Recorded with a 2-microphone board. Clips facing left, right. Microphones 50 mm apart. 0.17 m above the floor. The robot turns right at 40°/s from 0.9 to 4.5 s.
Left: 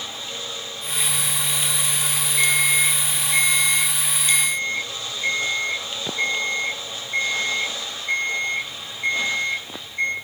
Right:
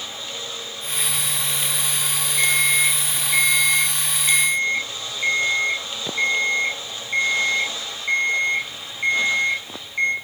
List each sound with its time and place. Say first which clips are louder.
2.4 s an alarm clock: right 1 dB; 160° left, 3 m; by 10.1 s 115° right, 3 m